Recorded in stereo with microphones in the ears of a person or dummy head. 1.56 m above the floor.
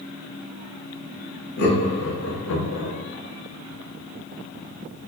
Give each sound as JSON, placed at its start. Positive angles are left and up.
{"t": 1.6, "sound": "laughter", "side_deg": 60, "distance_m": 1.0}